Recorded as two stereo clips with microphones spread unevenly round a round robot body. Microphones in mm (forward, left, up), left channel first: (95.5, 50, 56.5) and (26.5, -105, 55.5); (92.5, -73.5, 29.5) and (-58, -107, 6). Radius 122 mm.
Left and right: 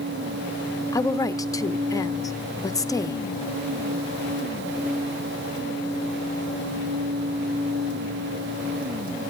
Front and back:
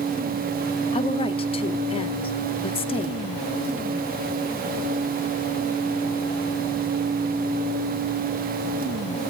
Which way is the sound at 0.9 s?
25° left.